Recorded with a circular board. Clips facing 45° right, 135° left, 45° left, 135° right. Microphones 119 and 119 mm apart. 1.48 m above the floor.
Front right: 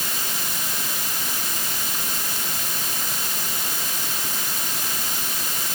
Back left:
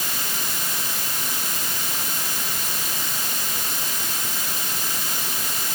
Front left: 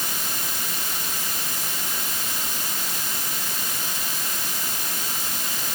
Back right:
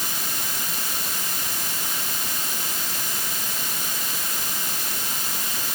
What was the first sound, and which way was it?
Only background noise.